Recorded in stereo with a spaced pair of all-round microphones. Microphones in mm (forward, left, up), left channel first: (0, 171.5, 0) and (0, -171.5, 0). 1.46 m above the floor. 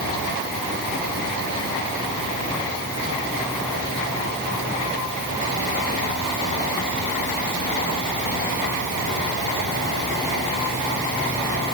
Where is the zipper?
No zipper in this recording.